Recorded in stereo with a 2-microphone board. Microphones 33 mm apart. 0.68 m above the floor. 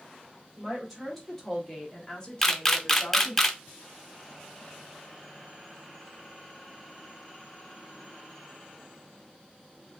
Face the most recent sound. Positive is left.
turn(degrees=10)  # may be behind; listen again after turning